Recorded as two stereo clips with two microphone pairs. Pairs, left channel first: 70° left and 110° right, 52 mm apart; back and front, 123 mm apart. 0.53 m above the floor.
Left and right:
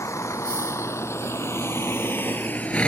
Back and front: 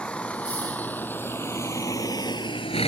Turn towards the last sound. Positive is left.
turn(degrees=140)